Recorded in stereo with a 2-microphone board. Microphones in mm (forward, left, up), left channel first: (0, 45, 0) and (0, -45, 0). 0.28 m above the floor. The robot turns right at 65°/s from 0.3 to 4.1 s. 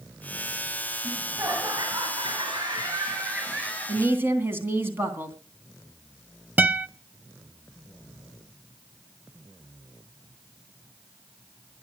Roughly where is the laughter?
Behind.